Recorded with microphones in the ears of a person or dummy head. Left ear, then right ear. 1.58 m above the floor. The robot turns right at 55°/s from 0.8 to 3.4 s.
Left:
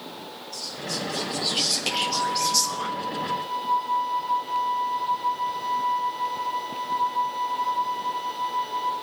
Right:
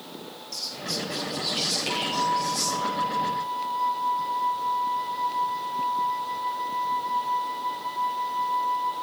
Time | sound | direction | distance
0.5 | whispering | 30° right | 1.3 m
1.9 | a flute | 30° right | 2.5 m